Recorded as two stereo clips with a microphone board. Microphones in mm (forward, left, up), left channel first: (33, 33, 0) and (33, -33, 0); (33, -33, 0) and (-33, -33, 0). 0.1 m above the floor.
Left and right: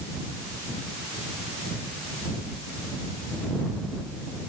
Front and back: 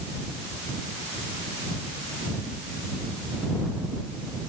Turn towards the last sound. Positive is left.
No sound to turn to.